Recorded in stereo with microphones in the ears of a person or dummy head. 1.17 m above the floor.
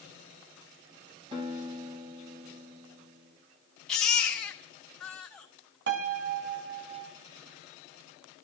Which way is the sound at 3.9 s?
5° left (ahead or behind).